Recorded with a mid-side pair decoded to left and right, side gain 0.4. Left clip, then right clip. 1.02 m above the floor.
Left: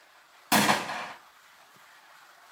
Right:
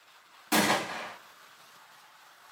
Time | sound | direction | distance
0.5 | a gunshot | 65° left | 0.7 m